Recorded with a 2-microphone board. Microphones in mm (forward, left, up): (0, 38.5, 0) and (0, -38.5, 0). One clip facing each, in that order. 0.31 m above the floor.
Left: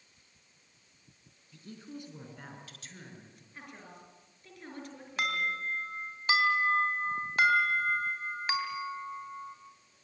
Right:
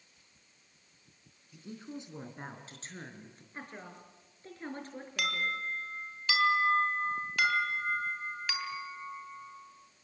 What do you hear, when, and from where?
1.5 s a woman speaking: 15° right (ahead or behind), 3.5 m; by 3.4 s 35° right (ahead or behind), 5.5 m
3.5 s a woman speaking: 35° right (ahead or behind), 5.5 m
5.2 s an alarm: 30° left (ahead or behind), 3 m